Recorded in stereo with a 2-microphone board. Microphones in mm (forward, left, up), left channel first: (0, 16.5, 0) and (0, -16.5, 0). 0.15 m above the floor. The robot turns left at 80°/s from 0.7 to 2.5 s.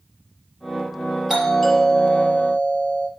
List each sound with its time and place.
1.3 s a doorbell: 170° right, 4 m; by 3.1 s 95° left, 4 m